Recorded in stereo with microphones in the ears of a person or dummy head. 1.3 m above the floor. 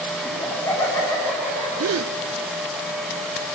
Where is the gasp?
85° right, 0.8 m.